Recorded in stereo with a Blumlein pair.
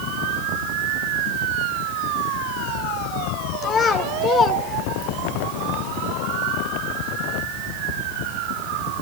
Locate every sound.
3.6 s a child speaking: 20° left, 3.5 m; by 5.3 s 10° left, 2 m